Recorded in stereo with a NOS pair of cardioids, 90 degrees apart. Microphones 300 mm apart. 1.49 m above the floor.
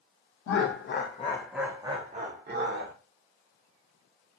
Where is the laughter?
55° left, 0.6 m; by 2.9 s 45° right, 1.0 m.